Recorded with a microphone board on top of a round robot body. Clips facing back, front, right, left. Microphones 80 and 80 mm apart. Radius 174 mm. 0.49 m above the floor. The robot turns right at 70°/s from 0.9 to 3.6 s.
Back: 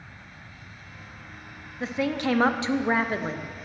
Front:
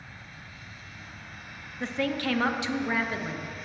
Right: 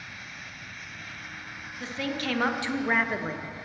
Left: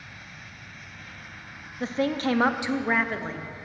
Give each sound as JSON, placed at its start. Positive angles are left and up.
{"t": 1.8, "sound": "a woman speaking", "azimuth_deg": 95, "distance_m": 1.0}